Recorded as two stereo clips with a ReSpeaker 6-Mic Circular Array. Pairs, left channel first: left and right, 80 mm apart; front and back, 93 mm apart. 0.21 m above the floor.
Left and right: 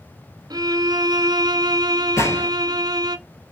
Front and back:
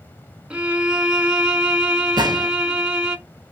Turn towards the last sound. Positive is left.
turn(degrees=140)